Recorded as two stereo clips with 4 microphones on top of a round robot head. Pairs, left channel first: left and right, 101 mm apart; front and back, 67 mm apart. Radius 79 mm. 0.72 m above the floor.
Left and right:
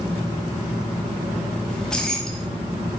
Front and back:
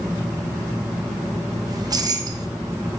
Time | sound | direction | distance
1.7 | keys jangling | 175° left | 1.0 m